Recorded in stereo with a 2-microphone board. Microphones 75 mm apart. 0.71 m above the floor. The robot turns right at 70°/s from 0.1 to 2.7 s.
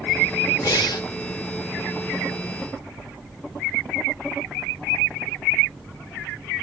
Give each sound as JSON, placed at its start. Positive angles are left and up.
{"t": 0.6, "sound": "breathing", "side_deg": 65, "distance_m": 1.0}